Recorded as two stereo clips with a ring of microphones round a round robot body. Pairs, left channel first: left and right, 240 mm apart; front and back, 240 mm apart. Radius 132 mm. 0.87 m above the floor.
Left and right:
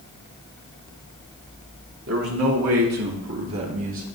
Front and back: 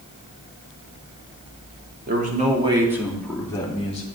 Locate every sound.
2.1 s a man speaking: 130° right, 2.5 m; by 4.1 s 60° right, 2.5 m